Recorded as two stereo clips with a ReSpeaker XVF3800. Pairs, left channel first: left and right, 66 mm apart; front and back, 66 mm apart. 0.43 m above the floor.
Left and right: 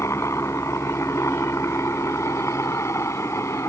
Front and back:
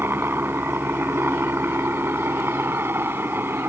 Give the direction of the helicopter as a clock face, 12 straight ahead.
8 o'clock.